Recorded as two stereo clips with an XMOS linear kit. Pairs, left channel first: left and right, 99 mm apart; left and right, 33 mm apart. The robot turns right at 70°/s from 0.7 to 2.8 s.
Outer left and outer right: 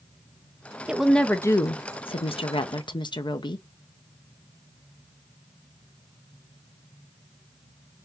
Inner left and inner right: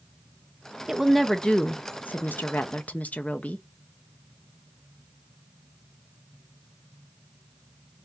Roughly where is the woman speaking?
Ahead.